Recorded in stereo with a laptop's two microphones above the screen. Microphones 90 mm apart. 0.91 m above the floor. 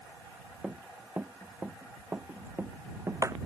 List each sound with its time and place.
0.6 s running footsteps: 10° right (ahead or behind); by 3.5 s 35° right (ahead or behind)